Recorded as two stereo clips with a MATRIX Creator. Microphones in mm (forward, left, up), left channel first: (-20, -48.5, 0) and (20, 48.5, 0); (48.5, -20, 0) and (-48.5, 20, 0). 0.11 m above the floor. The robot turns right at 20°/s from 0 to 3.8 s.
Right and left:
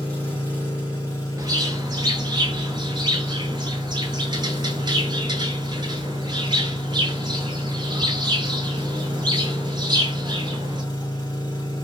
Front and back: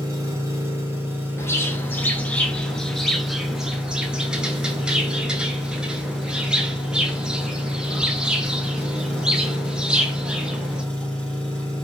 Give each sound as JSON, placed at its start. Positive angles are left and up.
{"t": 0.0, "sound": "an engine running", "azimuth_deg": -175, "distance_m": 1.4}
{"t": 1.4, "sound": "a bird", "azimuth_deg": 30, "distance_m": 0.6}